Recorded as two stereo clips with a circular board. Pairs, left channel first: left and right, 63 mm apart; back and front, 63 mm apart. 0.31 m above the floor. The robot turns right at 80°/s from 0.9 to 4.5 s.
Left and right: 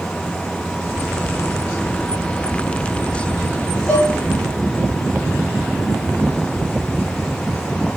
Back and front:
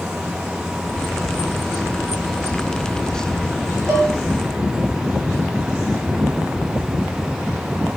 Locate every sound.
3.9 s dishes clattering: 20° left, 2.5 m; by 4.1 s 40° left, 2.5 m